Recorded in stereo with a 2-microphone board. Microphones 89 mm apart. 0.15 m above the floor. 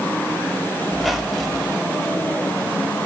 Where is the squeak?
Centre (ahead or behind), 1.9 m.